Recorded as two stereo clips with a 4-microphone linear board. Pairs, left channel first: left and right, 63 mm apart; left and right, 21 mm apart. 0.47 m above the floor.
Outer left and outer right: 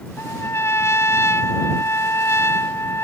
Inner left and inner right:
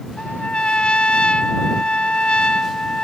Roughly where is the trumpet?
Left.